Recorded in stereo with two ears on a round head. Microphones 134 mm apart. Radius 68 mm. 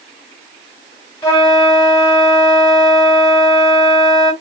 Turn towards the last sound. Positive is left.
turn(degrees=20)  # may be behind; listen again after turning